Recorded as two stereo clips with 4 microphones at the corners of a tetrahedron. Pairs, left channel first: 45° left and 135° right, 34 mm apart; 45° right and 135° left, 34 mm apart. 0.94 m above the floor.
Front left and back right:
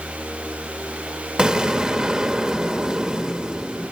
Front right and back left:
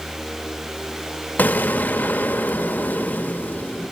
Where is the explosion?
75° right, 0.7 m.